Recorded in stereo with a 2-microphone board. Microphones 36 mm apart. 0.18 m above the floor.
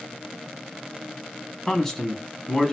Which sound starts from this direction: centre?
A man speaking, at 1.7 s.